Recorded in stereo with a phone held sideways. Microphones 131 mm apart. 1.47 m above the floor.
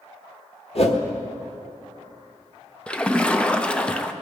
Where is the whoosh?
50° left (ahead or behind), 1.2 m.